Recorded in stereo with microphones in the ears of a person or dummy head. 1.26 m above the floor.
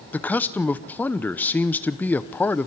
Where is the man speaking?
10° left (ahead or behind), 0.7 m.